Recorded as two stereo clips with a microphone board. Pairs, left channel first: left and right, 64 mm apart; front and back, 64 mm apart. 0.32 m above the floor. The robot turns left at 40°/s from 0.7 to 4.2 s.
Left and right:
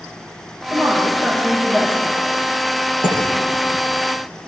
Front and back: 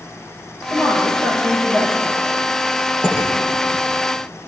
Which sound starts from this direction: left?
Dishes clattering, at 3.0 s.